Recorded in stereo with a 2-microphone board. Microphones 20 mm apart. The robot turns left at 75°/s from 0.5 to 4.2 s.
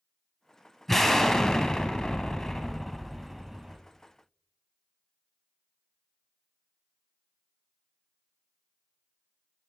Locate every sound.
0.9 s an explosion: 5° left (ahead or behind), 0.8 m; by 3.8 s 25° right (ahead or behind), 0.8 m